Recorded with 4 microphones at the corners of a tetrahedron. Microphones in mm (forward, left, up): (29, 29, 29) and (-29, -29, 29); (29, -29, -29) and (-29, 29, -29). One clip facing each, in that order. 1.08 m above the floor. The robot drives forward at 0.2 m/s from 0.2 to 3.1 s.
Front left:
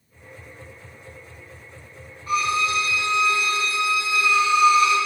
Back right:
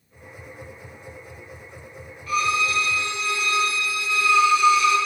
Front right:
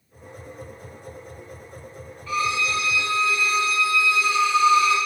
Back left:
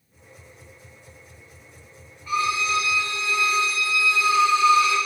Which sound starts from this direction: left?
A violin, at 2.3 s.